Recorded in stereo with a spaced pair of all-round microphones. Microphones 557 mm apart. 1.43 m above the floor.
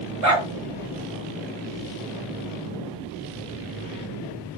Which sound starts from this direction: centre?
A dog barking, at 0.2 s.